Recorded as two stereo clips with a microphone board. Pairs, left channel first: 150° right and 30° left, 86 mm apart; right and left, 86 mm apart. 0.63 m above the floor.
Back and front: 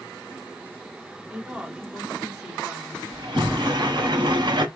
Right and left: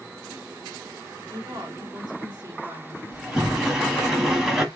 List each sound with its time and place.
1.3 s a woman speaking: 110° left, 1.8 m
3.1 s a sliding door: 5° left, 1.2 m